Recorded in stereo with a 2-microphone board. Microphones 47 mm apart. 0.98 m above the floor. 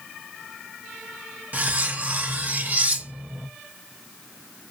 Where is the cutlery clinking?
40° right (ahead or behind), 0.7 m.